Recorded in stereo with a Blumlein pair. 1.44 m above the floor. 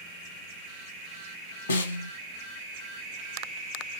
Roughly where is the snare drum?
Left.